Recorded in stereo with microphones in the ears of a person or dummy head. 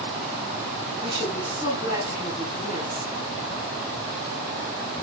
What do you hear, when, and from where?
1.0 s a woman speaking: 45° left (ahead or behind), 7.5 m